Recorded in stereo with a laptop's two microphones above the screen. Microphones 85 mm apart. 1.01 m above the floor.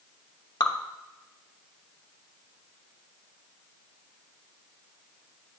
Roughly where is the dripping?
Left.